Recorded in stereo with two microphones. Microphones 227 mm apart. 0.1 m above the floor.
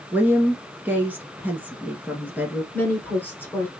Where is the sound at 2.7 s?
10° left (ahead or behind), 1.6 m.